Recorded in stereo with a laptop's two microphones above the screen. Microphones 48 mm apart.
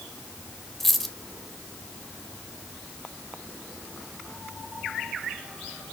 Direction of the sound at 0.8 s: 5° left (ahead or behind).